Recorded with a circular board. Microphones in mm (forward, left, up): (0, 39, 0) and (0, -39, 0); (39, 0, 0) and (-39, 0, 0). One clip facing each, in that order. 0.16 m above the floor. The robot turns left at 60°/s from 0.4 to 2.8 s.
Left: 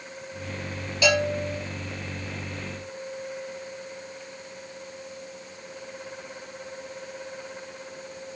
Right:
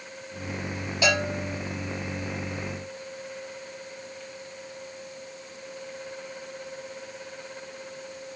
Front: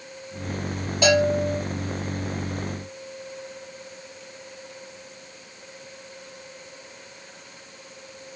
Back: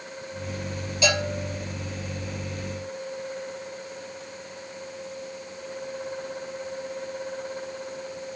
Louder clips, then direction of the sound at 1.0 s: Left 3 dB, front 7 dB; 35° right.